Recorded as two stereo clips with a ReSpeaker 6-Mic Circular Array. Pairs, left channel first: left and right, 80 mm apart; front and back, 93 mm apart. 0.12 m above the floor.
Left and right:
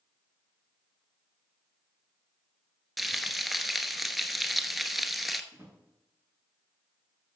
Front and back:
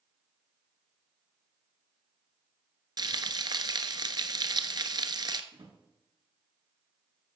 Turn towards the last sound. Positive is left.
turn(degrees=-155)